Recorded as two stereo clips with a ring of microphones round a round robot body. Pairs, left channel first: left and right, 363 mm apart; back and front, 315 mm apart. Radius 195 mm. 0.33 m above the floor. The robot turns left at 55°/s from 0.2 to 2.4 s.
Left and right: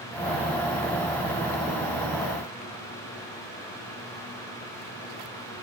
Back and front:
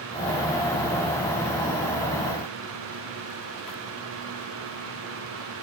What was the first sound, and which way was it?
Only background noise.